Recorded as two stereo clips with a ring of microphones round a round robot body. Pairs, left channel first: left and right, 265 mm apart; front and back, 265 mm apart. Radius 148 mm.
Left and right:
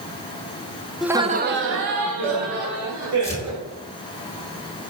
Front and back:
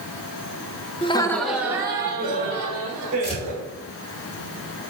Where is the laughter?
Straight ahead, 0.5 m; by 3.6 s 115° right, 2 m.